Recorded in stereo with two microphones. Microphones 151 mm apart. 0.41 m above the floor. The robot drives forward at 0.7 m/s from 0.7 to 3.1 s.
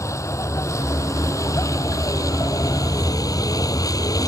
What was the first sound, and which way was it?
A vehicle, 20° left (ahead or behind).